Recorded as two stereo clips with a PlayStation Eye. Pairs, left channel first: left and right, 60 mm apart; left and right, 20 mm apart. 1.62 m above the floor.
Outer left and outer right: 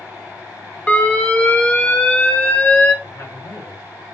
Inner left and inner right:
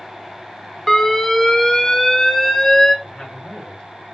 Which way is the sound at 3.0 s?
75° left (ahead or behind).